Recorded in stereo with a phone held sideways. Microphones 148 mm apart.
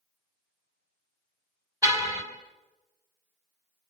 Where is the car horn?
20° right (ahead or behind), 3.5 m.